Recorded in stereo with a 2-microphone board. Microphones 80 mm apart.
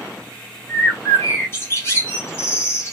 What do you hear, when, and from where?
0.7 s a bird: 30° left (ahead or behind), 1.4 m